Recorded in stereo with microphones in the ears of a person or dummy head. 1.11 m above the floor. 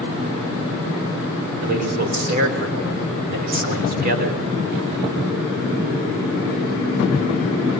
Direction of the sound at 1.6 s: 50° right (ahead or behind).